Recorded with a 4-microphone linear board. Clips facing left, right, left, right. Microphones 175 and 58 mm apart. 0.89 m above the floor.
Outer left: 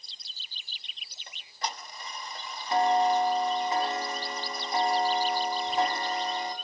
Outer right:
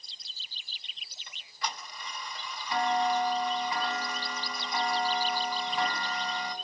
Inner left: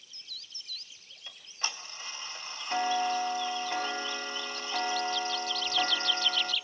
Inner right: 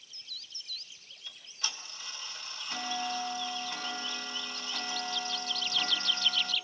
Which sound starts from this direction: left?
Ticking, at 1.3 s.